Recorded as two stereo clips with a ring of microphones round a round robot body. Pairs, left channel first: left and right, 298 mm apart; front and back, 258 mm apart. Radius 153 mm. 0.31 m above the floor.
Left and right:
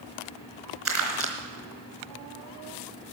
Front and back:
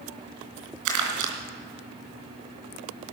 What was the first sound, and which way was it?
Crumpling, 175° right.